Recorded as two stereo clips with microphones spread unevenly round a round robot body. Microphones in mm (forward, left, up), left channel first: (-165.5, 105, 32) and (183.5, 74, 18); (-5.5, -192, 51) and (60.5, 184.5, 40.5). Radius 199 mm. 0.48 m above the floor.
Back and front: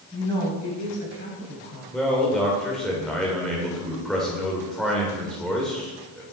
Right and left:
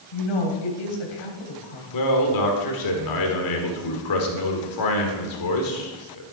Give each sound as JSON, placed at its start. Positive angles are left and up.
{"t": 0.1, "sound": "a woman speaking", "azimuth_deg": -105, "distance_m": 3.0}
{"t": 1.9, "sound": "a man speaking", "azimuth_deg": -95, "distance_m": 2.0}